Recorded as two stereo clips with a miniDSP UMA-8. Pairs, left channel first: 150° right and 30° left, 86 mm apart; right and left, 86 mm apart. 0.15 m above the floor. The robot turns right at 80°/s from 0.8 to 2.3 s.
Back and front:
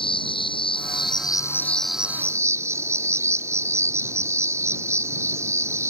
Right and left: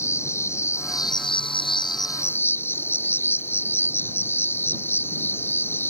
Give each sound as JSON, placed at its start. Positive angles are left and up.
{"t": 0.0, "sound": "an insect", "azimuth_deg": -145}